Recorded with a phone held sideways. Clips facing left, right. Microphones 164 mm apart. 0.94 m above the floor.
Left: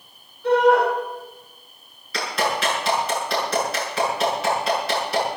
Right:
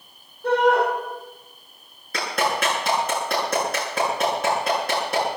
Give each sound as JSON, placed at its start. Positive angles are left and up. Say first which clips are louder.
{"t": 0.4, "sound": "a shout", "louder": "left 3 dB", "side_deg": -45, "distance_m": 9.0}
{"t": 2.1, "sound": "a clap", "louder": "even", "side_deg": -50, "distance_m": 9.0}